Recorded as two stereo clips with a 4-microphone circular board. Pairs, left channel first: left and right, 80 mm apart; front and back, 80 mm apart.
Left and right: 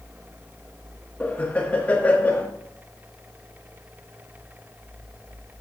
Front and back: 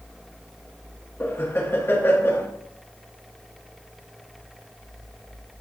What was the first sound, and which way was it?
Laughter, 35° left.